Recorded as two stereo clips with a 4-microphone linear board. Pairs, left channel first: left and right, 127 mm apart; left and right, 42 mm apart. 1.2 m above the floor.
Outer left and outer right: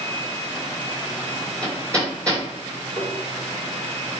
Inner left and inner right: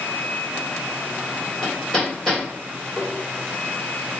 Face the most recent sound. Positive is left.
turn(degrees=35)  # may be behind; listen again after turning